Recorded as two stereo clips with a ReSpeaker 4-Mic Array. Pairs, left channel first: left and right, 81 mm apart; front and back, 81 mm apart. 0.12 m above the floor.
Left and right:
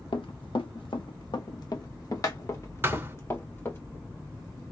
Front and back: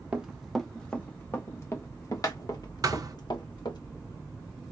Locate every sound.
0.1 s running footsteps: 100° left, 0.9 m; by 3.8 s 25° left, 1.9 m
2.8 s a thud: 145° right, 0.7 m